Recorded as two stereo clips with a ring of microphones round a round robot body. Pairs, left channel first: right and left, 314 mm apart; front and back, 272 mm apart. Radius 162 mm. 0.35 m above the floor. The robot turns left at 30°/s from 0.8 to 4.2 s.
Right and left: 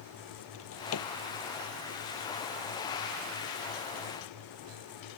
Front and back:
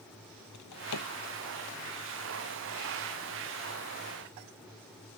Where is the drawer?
40° right; by 1.1 s 50° right.